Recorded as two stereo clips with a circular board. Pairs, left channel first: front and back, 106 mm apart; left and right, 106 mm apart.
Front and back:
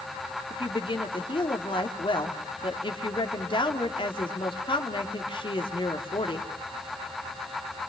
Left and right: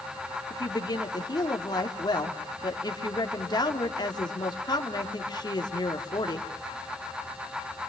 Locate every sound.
0.5 s a woman speaking: 40° left, 3 m